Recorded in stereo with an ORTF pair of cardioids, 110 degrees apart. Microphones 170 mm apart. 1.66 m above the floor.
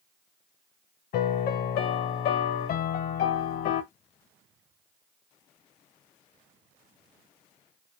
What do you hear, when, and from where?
1.1 s a piano: 65° left, 0.6 m